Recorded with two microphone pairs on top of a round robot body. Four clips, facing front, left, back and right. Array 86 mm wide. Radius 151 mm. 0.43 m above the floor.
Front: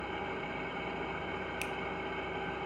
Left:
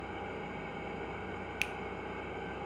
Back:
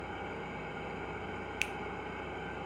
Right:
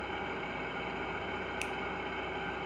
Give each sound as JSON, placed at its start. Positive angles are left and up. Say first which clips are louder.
{"t": 0.0, "sound": "an engine running", "louder": "right 3 dB, front 3 dB", "azimuth_deg": -70, "distance_m": 1.0}
{"t": 1.6, "sound": "a finger snap", "louder": "right 1 dB, front 1 dB", "azimuth_deg": 140, "distance_m": 0.5}